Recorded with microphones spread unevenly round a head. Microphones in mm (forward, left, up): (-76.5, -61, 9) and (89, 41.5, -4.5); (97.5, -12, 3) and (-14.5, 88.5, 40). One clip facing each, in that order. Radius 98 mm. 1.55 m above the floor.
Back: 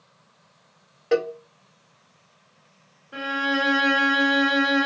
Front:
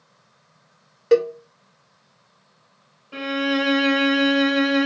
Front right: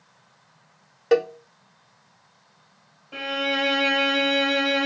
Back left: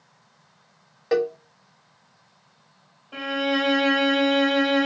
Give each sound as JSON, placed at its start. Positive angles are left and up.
{"t": 1.1, "sound": "a cowbell", "azimuth_deg": 30, "distance_m": 1.5}
{"t": 3.1, "sound": "a violin", "azimuth_deg": 60, "distance_m": 1.9}